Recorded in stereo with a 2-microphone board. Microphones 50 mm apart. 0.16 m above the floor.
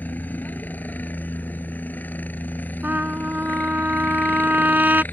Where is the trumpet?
40° right (ahead or behind).